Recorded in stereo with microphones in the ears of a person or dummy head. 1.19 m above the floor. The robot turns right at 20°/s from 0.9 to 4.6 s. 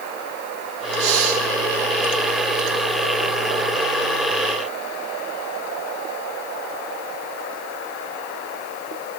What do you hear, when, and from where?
1.0 s breathing: 70° right (ahead or behind), 5 m; by 1.4 s 80° right, 5 m